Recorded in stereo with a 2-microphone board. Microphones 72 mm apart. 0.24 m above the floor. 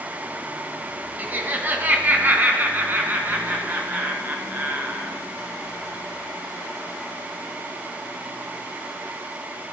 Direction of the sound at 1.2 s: 25° right (ahead or behind).